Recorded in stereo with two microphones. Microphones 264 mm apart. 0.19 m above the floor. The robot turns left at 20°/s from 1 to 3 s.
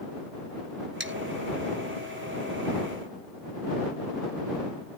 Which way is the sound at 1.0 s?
45° right (ahead or behind).